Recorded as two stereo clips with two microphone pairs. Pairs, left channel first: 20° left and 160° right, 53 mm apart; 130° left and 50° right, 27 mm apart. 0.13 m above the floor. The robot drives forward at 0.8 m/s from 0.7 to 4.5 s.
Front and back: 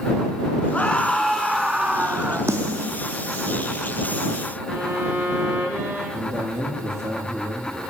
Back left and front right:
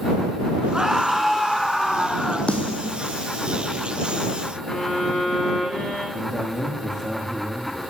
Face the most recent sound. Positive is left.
turn(degrees=-145)